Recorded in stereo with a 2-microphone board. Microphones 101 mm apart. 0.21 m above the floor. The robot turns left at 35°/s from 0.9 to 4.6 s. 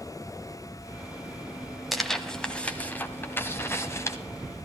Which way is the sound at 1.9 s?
Centre (ahead or behind).